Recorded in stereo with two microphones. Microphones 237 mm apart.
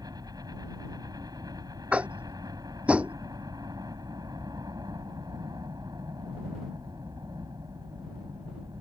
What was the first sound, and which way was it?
A helicopter, 15° right (ahead or behind).